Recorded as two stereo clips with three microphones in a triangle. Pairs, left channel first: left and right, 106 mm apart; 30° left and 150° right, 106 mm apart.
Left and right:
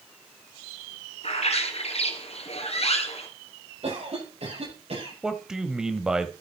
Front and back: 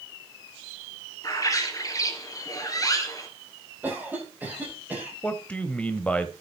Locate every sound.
1.2 s a bird: 85° left, 2.5 m
3.8 s a cough: 80° right, 9.5 m
5.2 s a man speaking: 20° right, 1.2 m